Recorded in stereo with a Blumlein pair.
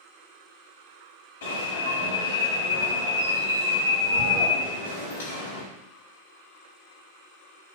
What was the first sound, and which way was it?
An alarm, 60° left.